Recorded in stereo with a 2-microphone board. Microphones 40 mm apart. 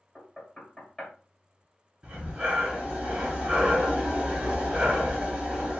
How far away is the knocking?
About 2 m.